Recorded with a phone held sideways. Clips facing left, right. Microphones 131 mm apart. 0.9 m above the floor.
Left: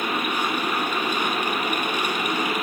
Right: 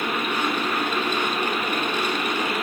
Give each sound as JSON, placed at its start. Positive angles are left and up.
{"t": 0.0, "sound": "a machine running", "side_deg": 10, "distance_m": 5.0}